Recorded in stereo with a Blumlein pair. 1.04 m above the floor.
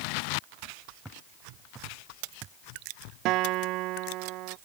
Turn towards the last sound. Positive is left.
turn(degrees=-40)